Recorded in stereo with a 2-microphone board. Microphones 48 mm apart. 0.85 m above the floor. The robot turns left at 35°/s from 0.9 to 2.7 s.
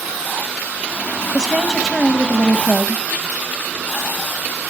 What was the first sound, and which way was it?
A woman speaking, 155° right.